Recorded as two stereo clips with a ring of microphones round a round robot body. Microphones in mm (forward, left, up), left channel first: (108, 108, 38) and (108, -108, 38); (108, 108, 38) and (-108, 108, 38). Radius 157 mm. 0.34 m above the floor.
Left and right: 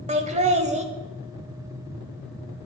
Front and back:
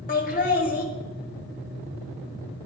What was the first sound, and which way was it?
Laughter, 40° right.